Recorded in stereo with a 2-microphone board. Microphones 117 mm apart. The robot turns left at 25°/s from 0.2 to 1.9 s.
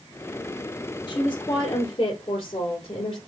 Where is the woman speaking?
30° left (ahead or behind), 2.5 m; by 3.2 s 45° left (ahead or behind), 2.5 m.